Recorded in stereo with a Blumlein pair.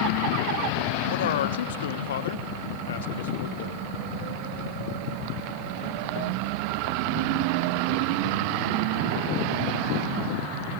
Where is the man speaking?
60° left, 2 m.